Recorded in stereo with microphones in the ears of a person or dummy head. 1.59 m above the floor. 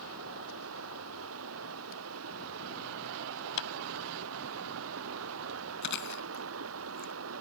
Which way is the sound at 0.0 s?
85° right.